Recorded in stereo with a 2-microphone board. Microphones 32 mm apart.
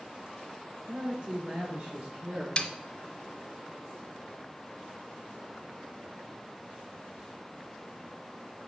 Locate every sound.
0.9 s a man speaking: 40° right (ahead or behind), 3.5 m; by 2.5 s 55° right (ahead or behind), 4.5 m
2.6 s a snare drum: 30° left (ahead or behind), 0.9 m